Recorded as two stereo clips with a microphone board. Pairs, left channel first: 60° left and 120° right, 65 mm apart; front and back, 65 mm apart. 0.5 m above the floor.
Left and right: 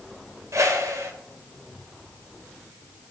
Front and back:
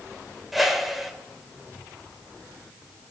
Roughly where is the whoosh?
Right.